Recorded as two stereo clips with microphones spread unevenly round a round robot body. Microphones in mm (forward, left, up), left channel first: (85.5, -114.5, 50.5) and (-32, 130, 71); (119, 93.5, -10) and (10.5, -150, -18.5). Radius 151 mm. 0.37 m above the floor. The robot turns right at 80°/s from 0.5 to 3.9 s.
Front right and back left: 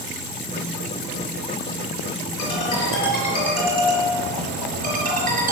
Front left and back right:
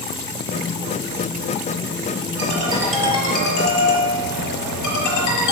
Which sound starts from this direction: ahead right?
A ringtone, at 2.4 s.